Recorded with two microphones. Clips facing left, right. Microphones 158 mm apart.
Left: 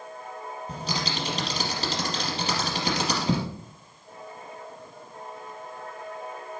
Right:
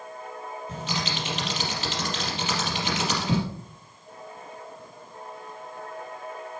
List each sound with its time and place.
0.7 s typing on a keyboard: 35° left (ahead or behind), 4 m